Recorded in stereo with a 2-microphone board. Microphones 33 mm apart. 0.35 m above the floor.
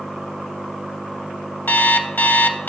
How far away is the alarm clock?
About 0.6 m.